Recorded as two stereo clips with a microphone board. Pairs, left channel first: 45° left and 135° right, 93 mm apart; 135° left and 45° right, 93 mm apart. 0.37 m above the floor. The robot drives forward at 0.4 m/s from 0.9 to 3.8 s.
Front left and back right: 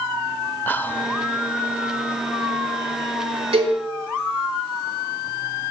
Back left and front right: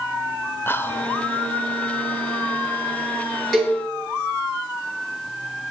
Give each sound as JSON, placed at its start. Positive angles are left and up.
{"t": 0.7, "sound": "whispering", "azimuth_deg": 95, "distance_m": 1.0}
{"t": 3.5, "sound": "a cowbell", "azimuth_deg": -135, "distance_m": 9.0}